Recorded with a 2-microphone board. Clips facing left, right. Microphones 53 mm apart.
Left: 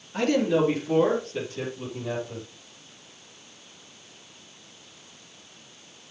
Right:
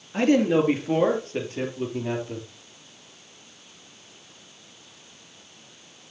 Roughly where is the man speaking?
Right.